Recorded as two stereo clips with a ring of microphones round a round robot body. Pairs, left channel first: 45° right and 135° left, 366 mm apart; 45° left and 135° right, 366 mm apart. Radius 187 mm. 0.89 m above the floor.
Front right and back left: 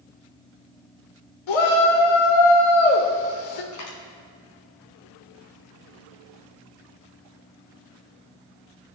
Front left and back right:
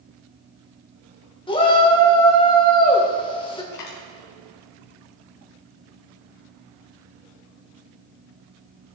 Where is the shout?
30° right, 2.5 m.